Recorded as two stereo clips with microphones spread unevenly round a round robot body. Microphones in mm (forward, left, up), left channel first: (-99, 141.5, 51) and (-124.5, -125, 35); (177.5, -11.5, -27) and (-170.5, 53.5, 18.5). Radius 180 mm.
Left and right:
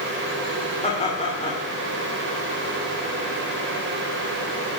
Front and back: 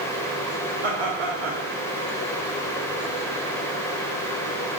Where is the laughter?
155° left, 2.5 m.